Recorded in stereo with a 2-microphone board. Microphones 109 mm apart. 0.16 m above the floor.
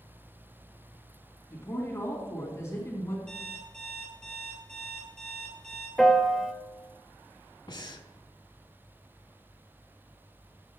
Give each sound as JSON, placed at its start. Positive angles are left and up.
{"t": 1.5, "sound": "a woman speaking", "side_deg": 25, "distance_m": 1.8}
{"t": 3.3, "sound": "an alarm clock", "side_deg": 5, "distance_m": 2.5}
{"t": 6.0, "sound": "a piano", "side_deg": 0, "distance_m": 0.6}
{"t": 7.7, "sound": "breathing", "side_deg": 40, "distance_m": 0.6}